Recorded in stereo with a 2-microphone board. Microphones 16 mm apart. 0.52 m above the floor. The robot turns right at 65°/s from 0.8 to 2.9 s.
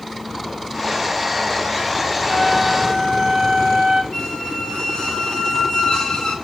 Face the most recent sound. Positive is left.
turn(degrees=45)  # may be behind; listen again after turning